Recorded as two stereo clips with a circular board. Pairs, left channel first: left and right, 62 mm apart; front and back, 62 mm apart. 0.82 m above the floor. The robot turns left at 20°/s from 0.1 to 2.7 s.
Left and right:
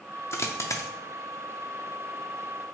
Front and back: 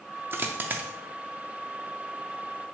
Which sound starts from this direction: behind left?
A dropped coin, at 0.3 s.